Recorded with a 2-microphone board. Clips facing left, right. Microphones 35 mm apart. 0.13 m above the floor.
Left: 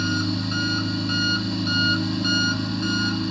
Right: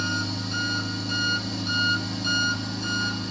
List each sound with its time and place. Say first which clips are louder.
0.0 s an engine running: left 4 dB; 30° left (ahead or behind), 2 m